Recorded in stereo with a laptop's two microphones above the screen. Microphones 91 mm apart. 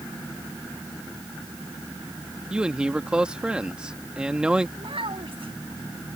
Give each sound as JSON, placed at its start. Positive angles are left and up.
{"t": 2.5, "sound": "a man speaking", "side_deg": -10}
{"t": 4.8, "sound": "a child speaking", "side_deg": -85}